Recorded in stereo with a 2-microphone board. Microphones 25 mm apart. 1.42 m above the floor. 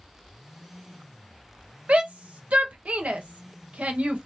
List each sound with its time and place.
1.9 s a shout: 70° right (ahead or behind), 0.9 m